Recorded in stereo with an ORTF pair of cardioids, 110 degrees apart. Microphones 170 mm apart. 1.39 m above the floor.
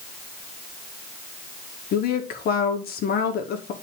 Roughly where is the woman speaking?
Ahead left.